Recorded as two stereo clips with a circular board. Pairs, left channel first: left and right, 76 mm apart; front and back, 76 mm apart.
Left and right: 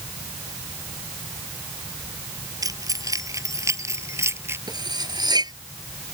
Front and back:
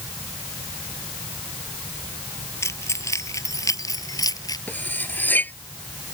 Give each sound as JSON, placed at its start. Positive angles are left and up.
{"t": 2.6, "sound": "keys jangling", "azimuth_deg": -55}
{"t": 4.7, "sound": "cutlery clinking", "azimuth_deg": -65}